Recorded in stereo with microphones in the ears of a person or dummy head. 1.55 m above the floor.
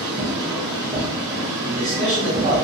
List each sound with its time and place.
0.0 s a machine running: 25° right (ahead or behind), 1.3 m
1.6 s a man speaking: 50° right (ahead or behind), 2.0 m